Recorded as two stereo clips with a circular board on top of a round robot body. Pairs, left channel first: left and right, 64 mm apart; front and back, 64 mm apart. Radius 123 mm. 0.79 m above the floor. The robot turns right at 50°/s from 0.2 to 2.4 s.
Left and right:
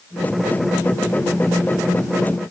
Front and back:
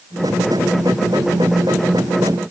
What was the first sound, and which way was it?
Only background noise.